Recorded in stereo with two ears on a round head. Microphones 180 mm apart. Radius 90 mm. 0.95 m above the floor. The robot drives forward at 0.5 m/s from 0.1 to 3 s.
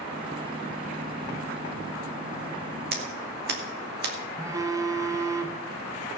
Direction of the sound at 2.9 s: 50° right (ahead or behind).